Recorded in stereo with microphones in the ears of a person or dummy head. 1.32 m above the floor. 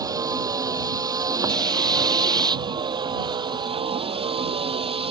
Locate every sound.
0.0 s a vehicle: 20° right (ahead or behind); by 5.1 s 25° right (ahead or behind)